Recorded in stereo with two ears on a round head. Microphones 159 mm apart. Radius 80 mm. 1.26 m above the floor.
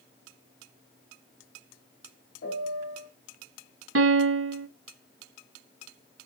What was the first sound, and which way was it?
A piano, 65° left (ahead or behind).